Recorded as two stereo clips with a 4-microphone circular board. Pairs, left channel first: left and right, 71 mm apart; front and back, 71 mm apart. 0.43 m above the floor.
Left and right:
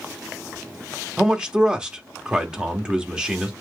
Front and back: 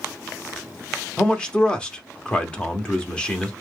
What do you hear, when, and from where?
1.2 s a man speaking: 45° right, 0.7 m